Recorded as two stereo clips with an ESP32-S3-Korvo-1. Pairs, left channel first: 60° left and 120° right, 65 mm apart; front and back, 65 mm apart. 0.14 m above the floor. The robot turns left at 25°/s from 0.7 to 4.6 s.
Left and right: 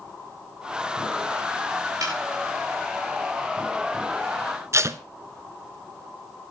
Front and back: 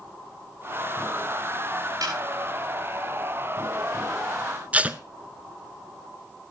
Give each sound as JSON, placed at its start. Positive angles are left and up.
{"t": 2.0, "sound": "a snare drum", "azimuth_deg": -155, "distance_m": 6.0}
{"t": 4.7, "sound": "tape being pulled", "azimuth_deg": -120, "distance_m": 0.6}